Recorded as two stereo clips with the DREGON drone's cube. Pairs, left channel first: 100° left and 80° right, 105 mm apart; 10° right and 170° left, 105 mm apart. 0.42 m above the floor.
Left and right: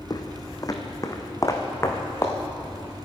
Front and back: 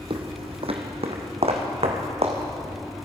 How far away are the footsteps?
About 1.1 m.